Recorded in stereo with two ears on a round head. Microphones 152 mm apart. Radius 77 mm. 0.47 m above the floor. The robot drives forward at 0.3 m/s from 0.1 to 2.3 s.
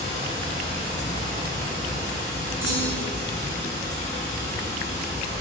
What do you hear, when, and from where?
0.0 s running water: 35° left (ahead or behind), 1.0 m; by 5.4 s 25° left (ahead or behind), 1.6 m
2.6 s a clunk: 15° right (ahead or behind), 1.3 m